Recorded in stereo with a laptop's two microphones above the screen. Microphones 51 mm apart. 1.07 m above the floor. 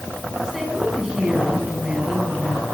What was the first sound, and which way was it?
A woman speaking, 15° right (ahead or behind).